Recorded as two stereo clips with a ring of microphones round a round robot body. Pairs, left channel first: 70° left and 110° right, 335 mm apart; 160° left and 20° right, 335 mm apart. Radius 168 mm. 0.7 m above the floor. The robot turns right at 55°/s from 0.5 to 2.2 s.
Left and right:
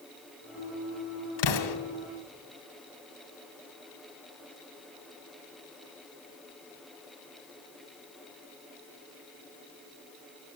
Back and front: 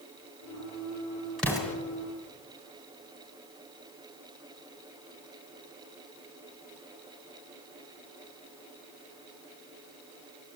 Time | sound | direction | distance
1.4 | an explosion | 70° left | 1.9 m